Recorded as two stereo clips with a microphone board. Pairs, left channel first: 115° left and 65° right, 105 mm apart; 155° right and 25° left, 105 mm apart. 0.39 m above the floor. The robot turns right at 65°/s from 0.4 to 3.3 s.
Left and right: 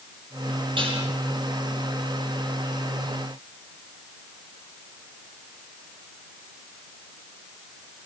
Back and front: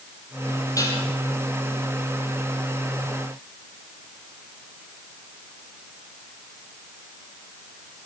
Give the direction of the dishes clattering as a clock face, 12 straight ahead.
3 o'clock.